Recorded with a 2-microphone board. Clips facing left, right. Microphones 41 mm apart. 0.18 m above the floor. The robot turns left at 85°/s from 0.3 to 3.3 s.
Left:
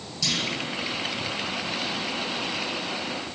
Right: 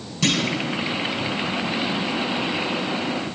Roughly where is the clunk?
Right.